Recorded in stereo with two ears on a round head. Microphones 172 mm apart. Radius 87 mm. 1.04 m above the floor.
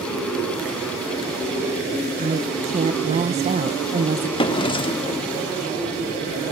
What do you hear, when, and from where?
2.2 s a woman speaking: 35° right (ahead or behind), 0.8 m
4.4 s a drawer: 30° left (ahead or behind), 1.5 m